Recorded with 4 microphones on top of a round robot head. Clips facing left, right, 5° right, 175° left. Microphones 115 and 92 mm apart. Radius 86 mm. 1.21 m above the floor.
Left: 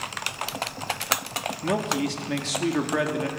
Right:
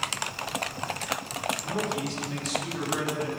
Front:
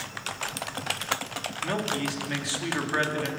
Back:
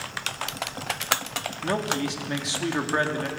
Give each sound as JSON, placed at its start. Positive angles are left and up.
{"t": 1.6, "sound": "a man speaking", "azimuth_deg": 105, "distance_m": 3.0}